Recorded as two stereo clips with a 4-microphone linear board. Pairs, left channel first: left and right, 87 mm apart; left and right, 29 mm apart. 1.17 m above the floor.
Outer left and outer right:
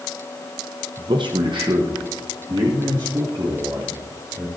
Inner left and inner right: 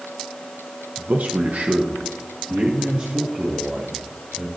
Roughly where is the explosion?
No explosion in this recording.